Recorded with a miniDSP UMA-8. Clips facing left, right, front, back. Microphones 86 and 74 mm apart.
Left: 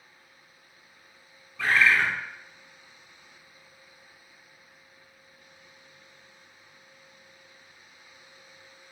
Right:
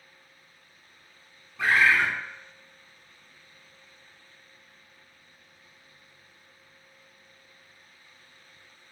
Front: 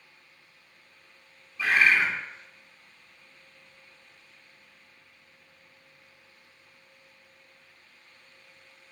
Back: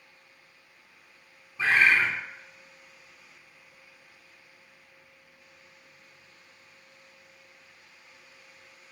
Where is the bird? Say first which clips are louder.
Right 1 dB, even; 155° right, 0.8 m.